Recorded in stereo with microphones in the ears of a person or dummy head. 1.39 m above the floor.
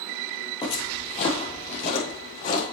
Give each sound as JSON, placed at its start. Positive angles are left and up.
{"t": 0.6, "sound": "footsteps", "side_deg": 25, "distance_m": 2.0}